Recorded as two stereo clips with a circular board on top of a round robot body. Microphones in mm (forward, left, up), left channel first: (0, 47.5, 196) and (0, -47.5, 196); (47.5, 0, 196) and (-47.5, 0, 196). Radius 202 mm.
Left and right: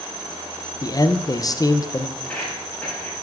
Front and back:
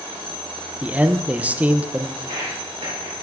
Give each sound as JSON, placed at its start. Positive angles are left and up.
{"t": 0.8, "sound": "a man speaking", "azimuth_deg": 115, "distance_m": 0.7}
{"t": 2.2, "sound": "footsteps", "azimuth_deg": 155, "distance_m": 3.0}